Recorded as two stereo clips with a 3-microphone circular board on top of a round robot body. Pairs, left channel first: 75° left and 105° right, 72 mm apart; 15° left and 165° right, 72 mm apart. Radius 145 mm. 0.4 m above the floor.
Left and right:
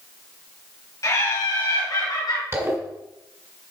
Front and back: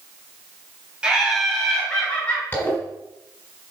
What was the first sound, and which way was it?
Laughter, 115° left.